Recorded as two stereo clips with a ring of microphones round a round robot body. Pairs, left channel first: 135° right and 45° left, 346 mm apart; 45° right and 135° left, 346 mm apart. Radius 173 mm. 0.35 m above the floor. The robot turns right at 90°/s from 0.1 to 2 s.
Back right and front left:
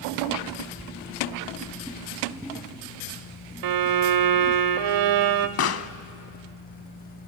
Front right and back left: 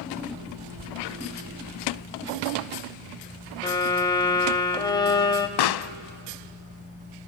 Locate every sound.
3.6 s a violin: 30° left, 0.8 m
5.6 s a pop: 80° right, 0.5 m